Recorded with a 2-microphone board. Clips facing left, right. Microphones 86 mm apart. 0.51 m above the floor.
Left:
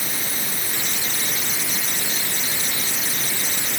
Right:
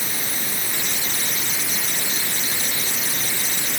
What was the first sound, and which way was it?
Only background noise.